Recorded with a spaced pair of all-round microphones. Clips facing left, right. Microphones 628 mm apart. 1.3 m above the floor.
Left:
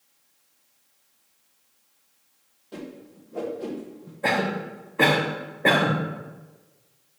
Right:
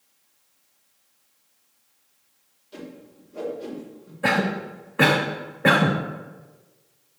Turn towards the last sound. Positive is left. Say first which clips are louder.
# right 2 dB
turn(degrees=-40)  # may be behind; listen again after turning